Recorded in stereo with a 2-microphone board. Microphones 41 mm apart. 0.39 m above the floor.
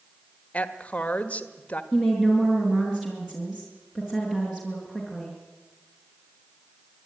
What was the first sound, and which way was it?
A woman speaking, 35° left (ahead or behind).